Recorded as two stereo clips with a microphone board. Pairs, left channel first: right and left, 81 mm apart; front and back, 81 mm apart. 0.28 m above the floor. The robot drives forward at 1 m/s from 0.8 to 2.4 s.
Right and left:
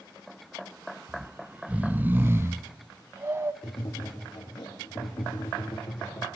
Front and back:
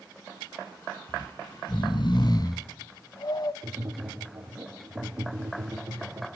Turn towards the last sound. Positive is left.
turn(degrees=-120)